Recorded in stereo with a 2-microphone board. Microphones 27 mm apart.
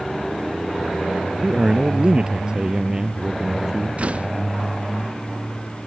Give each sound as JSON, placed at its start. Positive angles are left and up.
{"t": 1.4, "sound": "a man speaking", "side_deg": -40}
{"t": 4.0, "sound": "a door slam", "side_deg": -50}